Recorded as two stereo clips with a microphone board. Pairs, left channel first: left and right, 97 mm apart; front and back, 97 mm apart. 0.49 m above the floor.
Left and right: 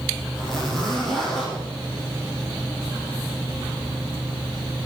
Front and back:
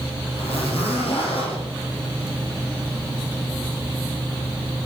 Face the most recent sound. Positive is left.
turn(degrees=0)